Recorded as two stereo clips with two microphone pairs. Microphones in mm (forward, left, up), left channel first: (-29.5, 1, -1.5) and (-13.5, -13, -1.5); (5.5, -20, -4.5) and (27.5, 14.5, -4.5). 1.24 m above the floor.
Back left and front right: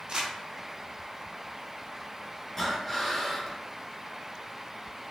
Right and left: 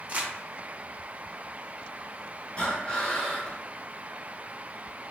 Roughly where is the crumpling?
Ahead.